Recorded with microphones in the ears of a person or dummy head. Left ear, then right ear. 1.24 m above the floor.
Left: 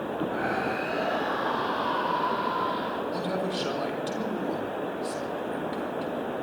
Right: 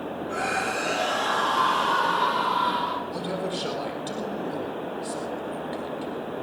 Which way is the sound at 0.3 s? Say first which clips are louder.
Right 4 dB; 80° right.